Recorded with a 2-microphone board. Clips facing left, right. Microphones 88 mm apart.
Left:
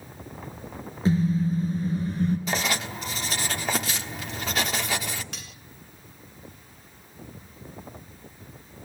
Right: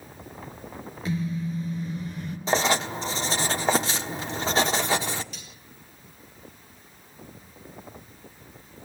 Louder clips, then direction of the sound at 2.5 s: Right 5 dB; 30° right (ahead or behind).